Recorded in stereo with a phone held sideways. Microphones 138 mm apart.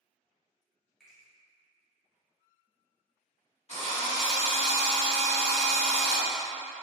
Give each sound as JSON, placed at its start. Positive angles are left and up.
{"t": 1.0, "sound": "a finger snap", "side_deg": 5, "distance_m": 1.9}
{"t": 3.7, "sound": "a drill", "side_deg": 55, "distance_m": 1.5}